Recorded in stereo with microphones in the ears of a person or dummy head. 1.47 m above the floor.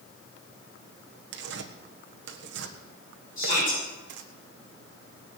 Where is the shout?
45° left (ahead or behind), 6 m.